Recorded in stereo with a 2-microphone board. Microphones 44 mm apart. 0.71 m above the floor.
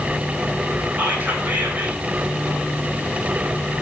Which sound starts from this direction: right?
Whispering, at 1.0 s.